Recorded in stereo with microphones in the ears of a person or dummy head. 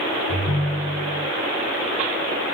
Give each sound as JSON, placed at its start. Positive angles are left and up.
{"t": 0.3, "sound": "a ringtone", "side_deg": 65, "distance_m": 3.0}